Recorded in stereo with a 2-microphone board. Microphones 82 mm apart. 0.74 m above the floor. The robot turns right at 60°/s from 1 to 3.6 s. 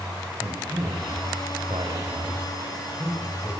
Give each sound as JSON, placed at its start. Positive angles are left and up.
{"t": 0.4, "sound": "a man speaking", "side_deg": -40, "distance_m": 5.0}